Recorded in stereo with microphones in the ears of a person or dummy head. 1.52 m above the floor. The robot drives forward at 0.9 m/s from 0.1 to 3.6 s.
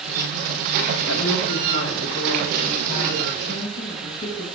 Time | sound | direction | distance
1.1 | a woman speaking | 80° left | 1.8 m